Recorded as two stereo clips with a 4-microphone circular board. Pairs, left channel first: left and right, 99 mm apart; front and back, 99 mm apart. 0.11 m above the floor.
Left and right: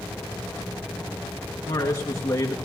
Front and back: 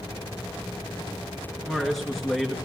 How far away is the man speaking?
About 1.8 m.